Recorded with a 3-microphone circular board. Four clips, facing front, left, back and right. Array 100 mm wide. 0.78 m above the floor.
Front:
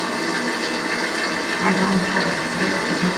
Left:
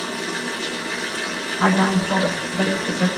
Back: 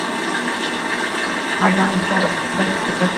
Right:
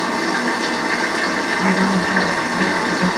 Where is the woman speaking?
135° left, 8.5 m.